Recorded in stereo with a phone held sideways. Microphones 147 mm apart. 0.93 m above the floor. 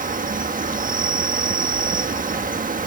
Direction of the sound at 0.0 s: 70° right (ahead or behind).